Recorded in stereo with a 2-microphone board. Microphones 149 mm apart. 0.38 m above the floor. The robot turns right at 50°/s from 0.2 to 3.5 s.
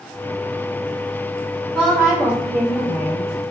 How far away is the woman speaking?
About 1.1 m.